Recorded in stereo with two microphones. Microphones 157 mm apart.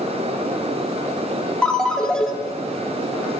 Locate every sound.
1.6 s a ringtone: 5° left (ahead or behind), 1.2 m